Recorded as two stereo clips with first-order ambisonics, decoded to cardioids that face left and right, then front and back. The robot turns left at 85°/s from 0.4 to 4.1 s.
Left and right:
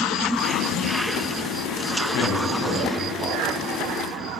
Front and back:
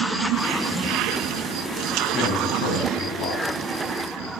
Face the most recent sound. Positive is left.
turn(degrees=-105)